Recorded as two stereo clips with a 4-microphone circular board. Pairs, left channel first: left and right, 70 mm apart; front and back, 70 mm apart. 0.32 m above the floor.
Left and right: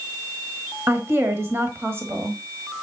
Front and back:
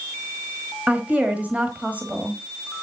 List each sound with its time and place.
0.9 s a woman speaking: 125° right, 1.4 m